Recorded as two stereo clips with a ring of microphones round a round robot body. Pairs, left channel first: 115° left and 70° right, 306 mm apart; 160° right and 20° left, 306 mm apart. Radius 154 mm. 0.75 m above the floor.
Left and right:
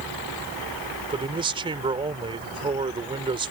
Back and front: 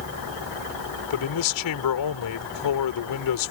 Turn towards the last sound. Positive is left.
turn(degrees=-140)